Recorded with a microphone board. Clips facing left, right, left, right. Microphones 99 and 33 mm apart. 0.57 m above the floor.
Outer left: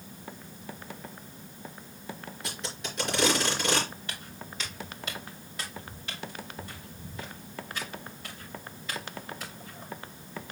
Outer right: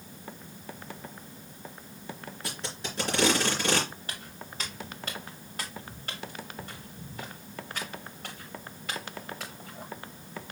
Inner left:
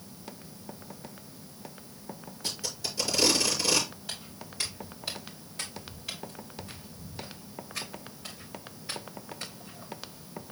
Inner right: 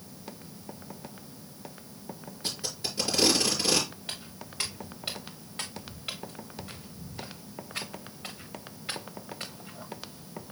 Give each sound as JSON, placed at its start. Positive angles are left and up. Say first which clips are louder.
{"t": 2.4, "sound": "tape being pulled", "louder": "outer right 1 dB, inner right 1 dB", "side_deg": -35, "distance_m": 4.5}
{"t": 4.1, "sound": "footsteps", "louder": "even, inner right 1 dB", "side_deg": -40, "distance_m": 6.0}